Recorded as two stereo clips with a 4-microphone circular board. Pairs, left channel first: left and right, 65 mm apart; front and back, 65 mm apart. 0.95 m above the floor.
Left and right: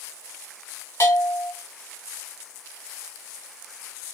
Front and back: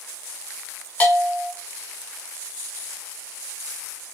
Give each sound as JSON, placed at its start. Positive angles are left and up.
{"t": 1.0, "sound": "a bell", "azimuth_deg": 60, "distance_m": 1.2}